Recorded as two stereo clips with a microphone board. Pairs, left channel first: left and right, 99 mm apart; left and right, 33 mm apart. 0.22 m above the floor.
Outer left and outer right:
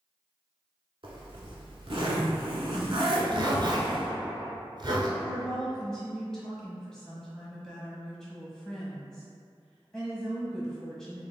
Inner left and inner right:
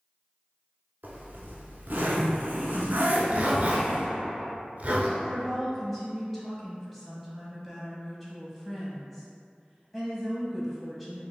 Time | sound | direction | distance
1.0 | a zipper | 60° right (ahead or behind) | 0.8 m
3.1 | a zipper | 50° right (ahead or behind) | 0.7 m
5.2 | a woman speaking | 5° left (ahead or behind) | 1.2 m